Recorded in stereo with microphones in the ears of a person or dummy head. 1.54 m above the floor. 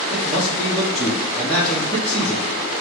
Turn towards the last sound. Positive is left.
turn(degrees=0)  # may be behind; listen again after turning